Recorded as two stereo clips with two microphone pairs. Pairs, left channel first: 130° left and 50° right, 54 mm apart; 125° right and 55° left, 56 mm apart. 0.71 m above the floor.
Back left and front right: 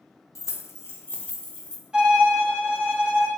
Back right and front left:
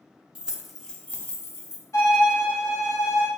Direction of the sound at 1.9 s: 120° right.